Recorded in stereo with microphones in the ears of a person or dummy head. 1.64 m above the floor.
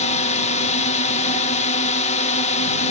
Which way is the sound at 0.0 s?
35° left (ahead or behind).